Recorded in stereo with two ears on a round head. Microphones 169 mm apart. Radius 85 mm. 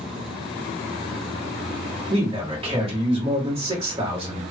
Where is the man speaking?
30° right (ahead or behind), 1.5 m.